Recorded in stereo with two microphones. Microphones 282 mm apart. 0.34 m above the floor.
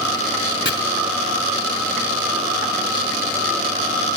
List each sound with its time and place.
0.7 s chopping: 40° left (ahead or behind), 0.9 m